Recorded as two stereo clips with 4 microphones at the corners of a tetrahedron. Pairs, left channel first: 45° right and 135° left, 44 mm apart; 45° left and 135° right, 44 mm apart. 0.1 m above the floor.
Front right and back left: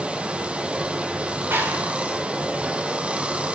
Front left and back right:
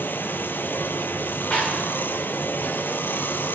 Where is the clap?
110° left, 9.5 m.